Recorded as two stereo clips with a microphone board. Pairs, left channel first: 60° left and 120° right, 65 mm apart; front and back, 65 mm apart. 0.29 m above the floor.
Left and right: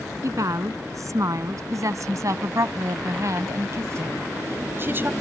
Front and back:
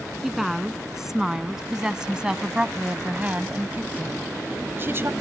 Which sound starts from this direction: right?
A woman speaking, at 0.2 s.